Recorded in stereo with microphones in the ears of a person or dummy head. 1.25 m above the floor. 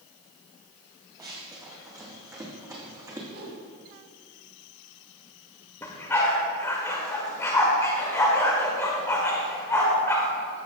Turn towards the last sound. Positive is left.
turn(degrees=10)  # may be behind; listen again after turning